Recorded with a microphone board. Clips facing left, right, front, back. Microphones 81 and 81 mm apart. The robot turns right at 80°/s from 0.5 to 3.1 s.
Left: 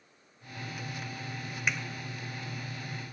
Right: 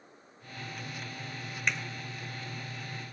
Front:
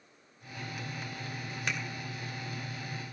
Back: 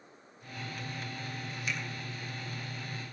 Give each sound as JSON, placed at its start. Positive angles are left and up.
{"t": 1.7, "sound": "a finger snap", "azimuth_deg": 5, "distance_m": 2.0}